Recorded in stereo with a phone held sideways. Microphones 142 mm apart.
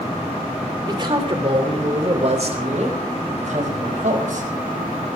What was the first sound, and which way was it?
A man speaking, 35° right (ahead or behind).